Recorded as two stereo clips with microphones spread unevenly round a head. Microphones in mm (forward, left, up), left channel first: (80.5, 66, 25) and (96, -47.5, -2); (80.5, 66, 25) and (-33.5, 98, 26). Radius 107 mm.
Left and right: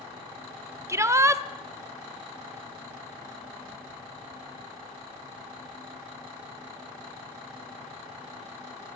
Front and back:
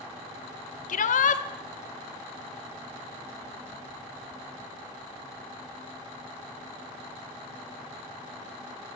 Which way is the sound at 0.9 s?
15° right.